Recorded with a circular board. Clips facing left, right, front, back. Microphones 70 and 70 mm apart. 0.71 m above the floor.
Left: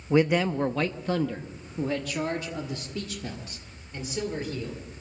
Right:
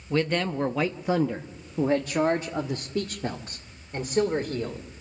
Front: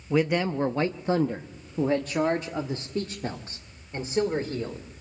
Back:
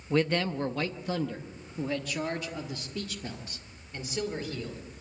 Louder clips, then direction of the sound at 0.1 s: Left 3 dB, front 3 dB; 65° left.